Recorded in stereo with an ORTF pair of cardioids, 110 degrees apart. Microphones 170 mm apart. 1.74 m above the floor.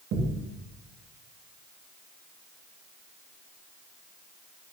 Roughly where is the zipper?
I don't hear a zipper.